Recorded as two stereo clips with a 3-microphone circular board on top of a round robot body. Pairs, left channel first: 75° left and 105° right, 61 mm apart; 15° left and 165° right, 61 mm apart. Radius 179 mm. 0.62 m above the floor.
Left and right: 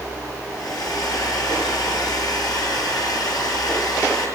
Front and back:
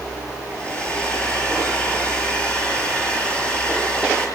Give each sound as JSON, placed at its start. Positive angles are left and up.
{"t": 0.5, "sound": "a hair dryer", "azimuth_deg": 85, "distance_m": 8.0}